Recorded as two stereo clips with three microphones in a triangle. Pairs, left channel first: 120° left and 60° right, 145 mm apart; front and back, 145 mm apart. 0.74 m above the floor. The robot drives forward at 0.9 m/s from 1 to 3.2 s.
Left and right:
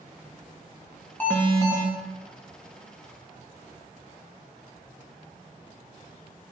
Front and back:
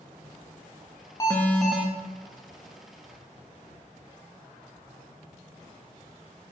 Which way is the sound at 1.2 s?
45° left.